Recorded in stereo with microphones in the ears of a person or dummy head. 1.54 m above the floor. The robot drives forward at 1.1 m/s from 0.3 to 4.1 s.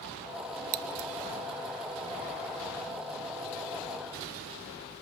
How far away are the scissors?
About 0.9 m.